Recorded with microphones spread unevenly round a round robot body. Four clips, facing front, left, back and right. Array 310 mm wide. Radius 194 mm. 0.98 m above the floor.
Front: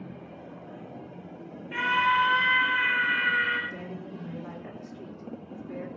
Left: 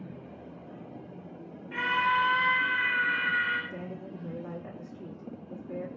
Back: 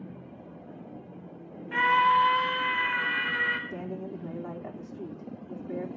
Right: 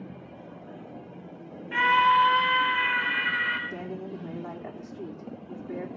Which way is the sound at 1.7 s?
130° right.